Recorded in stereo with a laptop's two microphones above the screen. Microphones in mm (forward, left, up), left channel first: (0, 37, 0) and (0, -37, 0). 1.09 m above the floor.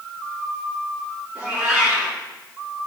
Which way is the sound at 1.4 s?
5° left (ahead or behind).